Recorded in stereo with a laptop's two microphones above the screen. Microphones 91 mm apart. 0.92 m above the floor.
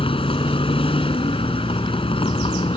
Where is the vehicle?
90° left.